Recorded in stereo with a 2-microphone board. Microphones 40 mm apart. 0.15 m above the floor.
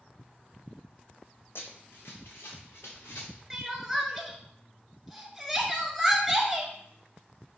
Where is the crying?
10° right (ahead or behind), 0.5 m.